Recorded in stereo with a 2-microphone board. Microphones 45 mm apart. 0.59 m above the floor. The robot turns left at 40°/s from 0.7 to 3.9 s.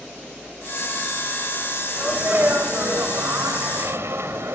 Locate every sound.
1.9 s a sneeze: 30° right, 3 m; by 4.5 s 105° right, 3 m